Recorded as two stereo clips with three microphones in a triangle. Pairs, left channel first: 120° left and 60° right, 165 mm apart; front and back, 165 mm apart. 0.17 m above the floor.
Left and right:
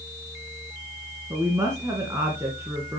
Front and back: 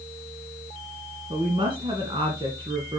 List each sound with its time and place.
1.3 s a woman speaking: 125° right, 2 m